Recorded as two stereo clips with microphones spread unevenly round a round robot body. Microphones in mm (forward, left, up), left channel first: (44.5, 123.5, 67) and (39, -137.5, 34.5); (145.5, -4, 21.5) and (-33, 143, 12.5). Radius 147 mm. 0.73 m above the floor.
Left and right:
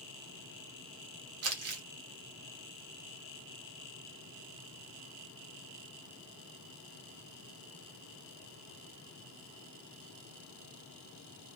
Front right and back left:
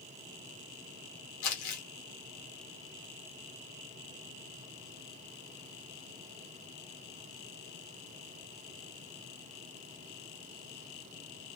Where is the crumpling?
55° right, 0.9 m.